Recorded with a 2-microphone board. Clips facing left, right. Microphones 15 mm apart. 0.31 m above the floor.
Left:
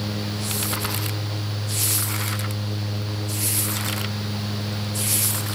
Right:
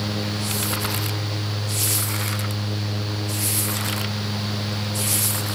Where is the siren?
No siren in this recording.